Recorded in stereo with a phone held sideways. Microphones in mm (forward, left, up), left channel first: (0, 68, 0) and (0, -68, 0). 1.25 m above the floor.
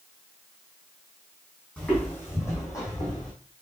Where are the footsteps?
10° left (ahead or behind), 2.5 m; by 3.3 s 30° left (ahead or behind), 3 m.